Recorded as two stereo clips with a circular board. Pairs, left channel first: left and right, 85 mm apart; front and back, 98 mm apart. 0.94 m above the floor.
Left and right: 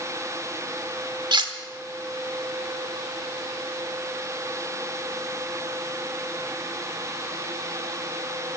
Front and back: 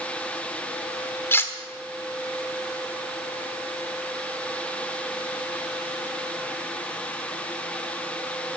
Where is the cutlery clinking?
65° right, 1.3 m.